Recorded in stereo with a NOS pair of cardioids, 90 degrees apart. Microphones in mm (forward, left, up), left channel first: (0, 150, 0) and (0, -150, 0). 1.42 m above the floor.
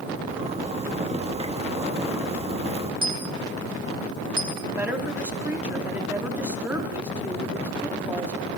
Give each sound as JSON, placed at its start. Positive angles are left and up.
{"t": 0.3, "sound": "a zipper", "azimuth_deg": -20, "distance_m": 1.6}
{"t": 3.0, "sound": "a dropped coin", "azimuth_deg": -15, "distance_m": 2.5}
{"t": 4.8, "sound": "a woman speaking", "azimuth_deg": -5, "distance_m": 3.0}